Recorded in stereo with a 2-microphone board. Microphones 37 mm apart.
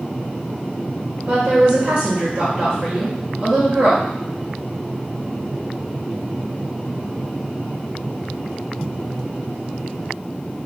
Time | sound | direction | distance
1.3 | a woman speaking | 15° right (ahead or behind) | 1.3 m